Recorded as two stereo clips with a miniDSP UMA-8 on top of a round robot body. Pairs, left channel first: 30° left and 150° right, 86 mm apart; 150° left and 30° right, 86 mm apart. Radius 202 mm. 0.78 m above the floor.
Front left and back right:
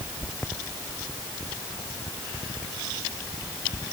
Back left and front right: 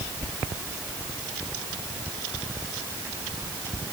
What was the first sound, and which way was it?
Only background noise.